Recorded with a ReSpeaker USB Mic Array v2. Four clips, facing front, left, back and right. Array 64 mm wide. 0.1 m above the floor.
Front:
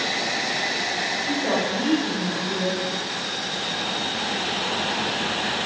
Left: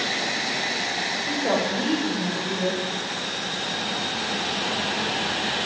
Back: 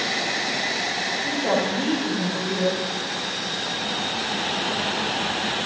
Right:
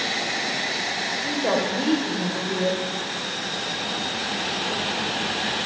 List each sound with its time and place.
1.2 s a woman speaking: 95° right, 6 m